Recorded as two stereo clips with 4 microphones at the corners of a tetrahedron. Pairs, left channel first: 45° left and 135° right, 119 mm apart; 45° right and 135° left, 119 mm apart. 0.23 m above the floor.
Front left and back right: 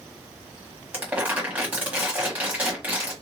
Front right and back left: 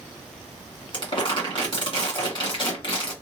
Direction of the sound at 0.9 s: 65° right.